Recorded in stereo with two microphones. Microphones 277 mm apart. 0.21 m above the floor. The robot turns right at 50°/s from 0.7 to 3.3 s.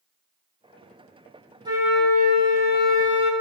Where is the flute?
15° right, 0.6 m; by 3.3 s 65° left, 0.6 m.